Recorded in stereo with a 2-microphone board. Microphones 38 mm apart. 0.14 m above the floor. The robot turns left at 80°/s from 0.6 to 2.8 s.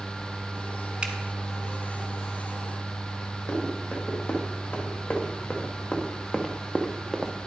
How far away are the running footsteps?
About 3 m.